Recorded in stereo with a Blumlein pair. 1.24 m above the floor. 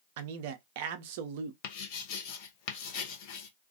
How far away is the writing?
About 0.6 m.